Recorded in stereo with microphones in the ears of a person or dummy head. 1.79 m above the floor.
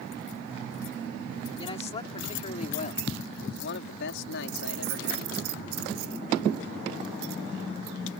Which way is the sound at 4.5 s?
50° right (ahead or behind).